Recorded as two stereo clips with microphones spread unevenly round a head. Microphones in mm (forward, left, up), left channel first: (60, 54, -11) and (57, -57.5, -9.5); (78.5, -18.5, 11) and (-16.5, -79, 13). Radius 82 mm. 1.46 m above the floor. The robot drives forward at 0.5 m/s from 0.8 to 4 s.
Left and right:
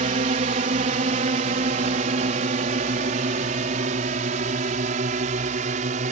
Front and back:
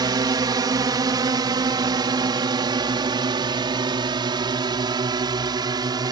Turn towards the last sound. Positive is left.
turn(degrees=-95)